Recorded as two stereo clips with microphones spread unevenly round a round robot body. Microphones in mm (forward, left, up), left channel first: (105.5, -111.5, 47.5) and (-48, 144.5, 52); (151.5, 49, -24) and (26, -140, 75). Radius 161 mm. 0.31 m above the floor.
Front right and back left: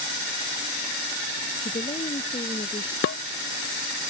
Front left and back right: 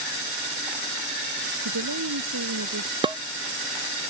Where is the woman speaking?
135° right.